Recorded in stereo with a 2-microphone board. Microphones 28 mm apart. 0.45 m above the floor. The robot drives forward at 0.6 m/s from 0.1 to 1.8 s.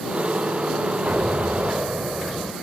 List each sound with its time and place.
1.1 s an explosion: 55° right (ahead or behind); by 2.5 s 40° right (ahead or behind)